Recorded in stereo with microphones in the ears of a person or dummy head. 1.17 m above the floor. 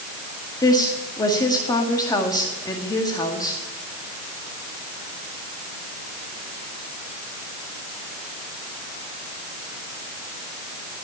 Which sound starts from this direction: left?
A woman speaking, at 0.6 s.